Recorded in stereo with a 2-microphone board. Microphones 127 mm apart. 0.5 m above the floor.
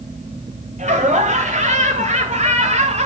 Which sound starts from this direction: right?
Laughter, at 0.8 s.